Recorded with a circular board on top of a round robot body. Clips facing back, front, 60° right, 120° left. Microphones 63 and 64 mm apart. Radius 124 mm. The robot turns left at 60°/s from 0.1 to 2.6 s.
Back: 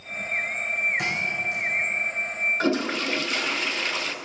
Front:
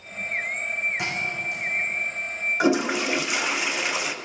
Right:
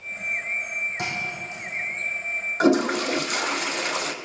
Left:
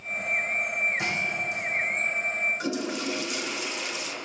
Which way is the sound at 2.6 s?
80° right.